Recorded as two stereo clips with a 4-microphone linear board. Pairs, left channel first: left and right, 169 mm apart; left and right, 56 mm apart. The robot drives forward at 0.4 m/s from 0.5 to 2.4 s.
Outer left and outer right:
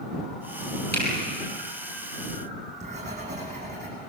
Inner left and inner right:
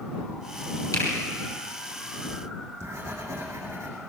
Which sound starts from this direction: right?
Writing, at 2.3 s.